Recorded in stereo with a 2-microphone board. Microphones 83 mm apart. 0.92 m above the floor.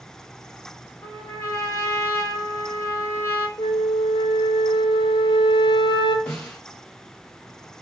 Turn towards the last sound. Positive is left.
turn(degrees=10)  # may be behind; listen again after turning